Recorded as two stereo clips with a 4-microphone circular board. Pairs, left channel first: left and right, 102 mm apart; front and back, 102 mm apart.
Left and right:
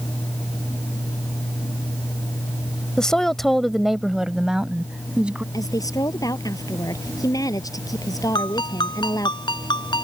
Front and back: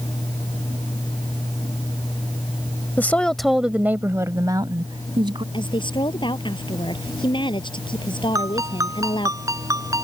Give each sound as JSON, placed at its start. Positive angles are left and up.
{"t": 3.0, "sound": "a woman speaking", "azimuth_deg": 20}
{"t": 5.5, "sound": "a woman speaking", "azimuth_deg": 35}
{"t": 8.3, "sound": "a ringtone", "azimuth_deg": 125}